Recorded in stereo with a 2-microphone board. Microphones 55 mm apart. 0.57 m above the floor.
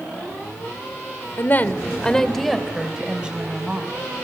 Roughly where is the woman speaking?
Left.